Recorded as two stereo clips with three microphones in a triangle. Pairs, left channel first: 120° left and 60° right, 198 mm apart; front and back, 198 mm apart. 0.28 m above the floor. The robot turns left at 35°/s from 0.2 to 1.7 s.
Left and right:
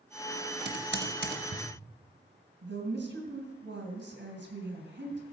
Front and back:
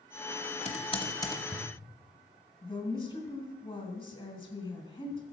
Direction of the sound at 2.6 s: 65° right.